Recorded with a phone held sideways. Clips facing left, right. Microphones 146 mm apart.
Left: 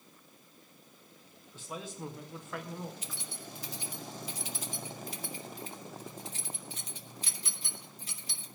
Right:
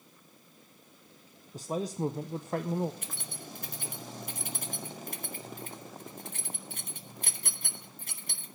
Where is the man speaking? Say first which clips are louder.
Right 10 dB; 40° right (ahead or behind), 0.5 m.